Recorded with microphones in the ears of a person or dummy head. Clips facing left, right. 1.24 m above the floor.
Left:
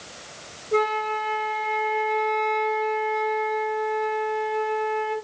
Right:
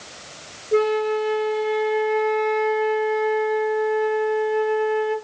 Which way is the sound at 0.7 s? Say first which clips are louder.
Right 5 dB; 25° right (ahead or behind).